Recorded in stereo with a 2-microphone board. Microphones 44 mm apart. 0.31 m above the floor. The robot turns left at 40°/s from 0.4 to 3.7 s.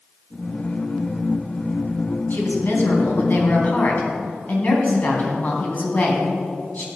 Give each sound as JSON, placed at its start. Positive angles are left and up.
{"t": 2.3, "sound": "a woman speaking", "azimuth_deg": 110, "distance_m": 3.0}